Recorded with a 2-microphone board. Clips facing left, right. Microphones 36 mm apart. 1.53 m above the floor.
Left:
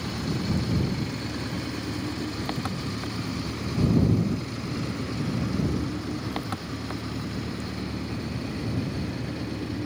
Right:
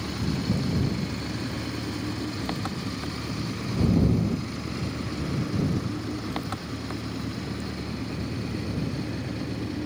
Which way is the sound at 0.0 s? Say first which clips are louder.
Even; 5° left (ahead or behind).